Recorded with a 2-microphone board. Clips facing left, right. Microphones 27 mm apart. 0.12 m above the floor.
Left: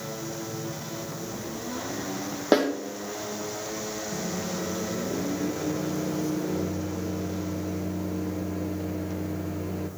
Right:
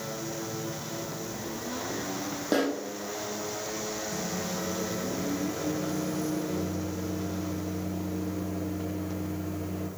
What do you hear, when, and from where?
2.5 s a snare drum: 35° left (ahead or behind), 2 m
4.1 s a microwave: 5° left (ahead or behind), 1.5 m